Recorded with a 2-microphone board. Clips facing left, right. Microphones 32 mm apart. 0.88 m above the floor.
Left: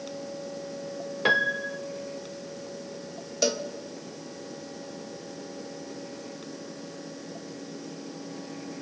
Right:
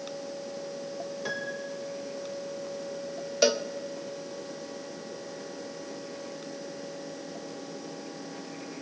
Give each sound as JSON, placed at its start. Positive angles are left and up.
{"t": 1.2, "sound": "a piano", "side_deg": 50, "distance_m": 0.6}
{"t": 3.4, "sound": "a cowbell", "side_deg": -20, "distance_m": 1.2}